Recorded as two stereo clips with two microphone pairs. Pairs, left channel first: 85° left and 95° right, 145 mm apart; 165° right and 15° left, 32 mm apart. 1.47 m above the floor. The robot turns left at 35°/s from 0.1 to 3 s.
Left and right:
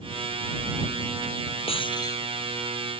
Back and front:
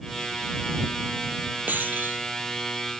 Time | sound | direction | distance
1.7 | breaking glass | 35° left | ?